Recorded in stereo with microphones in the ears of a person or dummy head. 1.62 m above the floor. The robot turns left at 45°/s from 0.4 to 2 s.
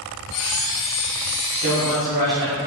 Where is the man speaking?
45° left (ahead or behind), 1.3 m; by 2.6 s 60° left (ahead or behind), 1.3 m.